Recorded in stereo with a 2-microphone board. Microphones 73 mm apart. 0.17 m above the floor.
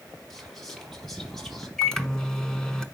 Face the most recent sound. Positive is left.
turn(degrees=5)  # may be behind; listen again after turning